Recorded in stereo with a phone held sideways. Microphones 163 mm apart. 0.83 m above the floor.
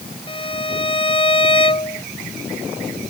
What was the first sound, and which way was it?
A violin, 30° left (ahead or behind).